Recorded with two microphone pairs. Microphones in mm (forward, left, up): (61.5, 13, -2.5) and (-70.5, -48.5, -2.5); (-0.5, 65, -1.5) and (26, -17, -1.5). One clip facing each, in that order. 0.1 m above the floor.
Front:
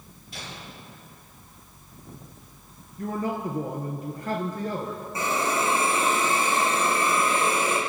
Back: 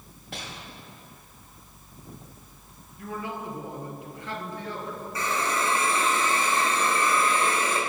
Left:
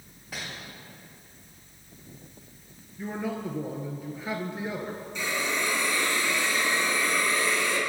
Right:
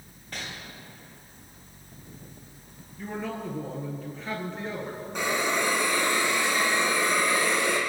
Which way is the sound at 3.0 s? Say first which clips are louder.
Front 6 dB, left 1 dB; 40° left.